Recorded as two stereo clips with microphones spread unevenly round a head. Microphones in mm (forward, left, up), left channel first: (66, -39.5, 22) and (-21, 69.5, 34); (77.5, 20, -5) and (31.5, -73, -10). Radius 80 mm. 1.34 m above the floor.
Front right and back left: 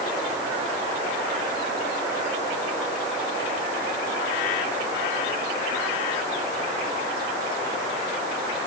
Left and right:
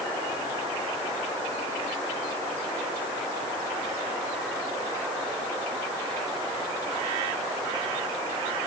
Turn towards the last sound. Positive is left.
No sound to turn to.